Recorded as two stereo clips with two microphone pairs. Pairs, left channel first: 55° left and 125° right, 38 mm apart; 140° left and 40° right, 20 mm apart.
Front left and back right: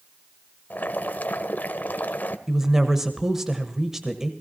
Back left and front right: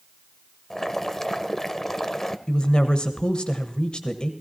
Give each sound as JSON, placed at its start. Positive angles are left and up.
{"t": 0.7, "sound": "boiling", "azimuth_deg": 80, "distance_m": 0.8}
{"t": 2.5, "sound": "a woman speaking", "azimuth_deg": 160, "distance_m": 1.3}